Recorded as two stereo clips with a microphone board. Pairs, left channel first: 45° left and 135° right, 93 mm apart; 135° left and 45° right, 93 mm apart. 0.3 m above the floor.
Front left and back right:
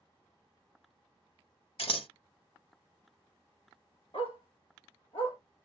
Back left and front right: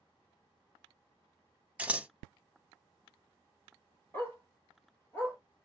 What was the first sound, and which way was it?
Scissors, 30° left.